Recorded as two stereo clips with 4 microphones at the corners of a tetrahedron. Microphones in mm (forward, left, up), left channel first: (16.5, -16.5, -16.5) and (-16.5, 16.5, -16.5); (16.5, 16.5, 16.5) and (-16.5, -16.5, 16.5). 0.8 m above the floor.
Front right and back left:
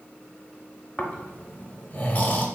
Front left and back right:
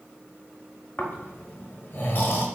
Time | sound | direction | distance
1.0 | snoring | 5° left | 0.7 m